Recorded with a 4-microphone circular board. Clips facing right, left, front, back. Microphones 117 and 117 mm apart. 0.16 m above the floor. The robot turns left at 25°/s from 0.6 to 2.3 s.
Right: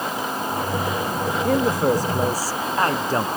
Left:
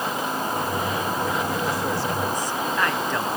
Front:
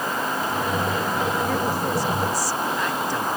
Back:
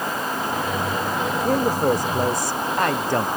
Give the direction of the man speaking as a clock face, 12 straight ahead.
4 o'clock.